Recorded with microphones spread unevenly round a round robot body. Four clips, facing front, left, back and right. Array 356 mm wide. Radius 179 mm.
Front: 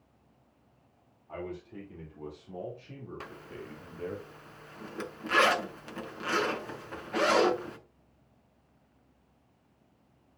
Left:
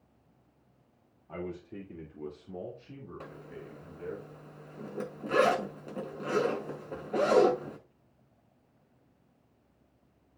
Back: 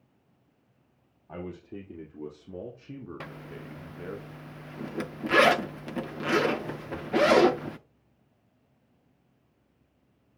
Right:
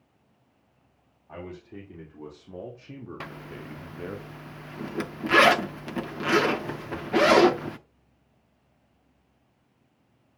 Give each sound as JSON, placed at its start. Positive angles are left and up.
{"t": 1.3, "sound": "a man speaking", "azimuth_deg": 175, "distance_m": 2.5}
{"t": 3.2, "sound": "a zipper", "azimuth_deg": -115, "distance_m": 0.6}